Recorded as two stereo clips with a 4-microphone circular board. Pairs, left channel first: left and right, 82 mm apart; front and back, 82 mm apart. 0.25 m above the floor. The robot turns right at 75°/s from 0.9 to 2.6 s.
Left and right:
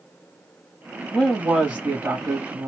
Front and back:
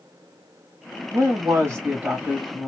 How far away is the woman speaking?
About 1.1 m.